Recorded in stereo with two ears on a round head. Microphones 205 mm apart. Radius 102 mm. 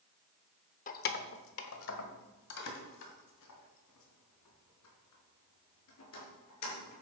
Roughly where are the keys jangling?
Left.